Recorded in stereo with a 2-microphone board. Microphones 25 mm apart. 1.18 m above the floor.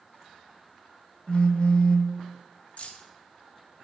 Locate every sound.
1.3 s a phone buzzing: 55° left (ahead or behind), 0.7 m
2.8 s keys jangling: 65° left (ahead or behind), 0.7 m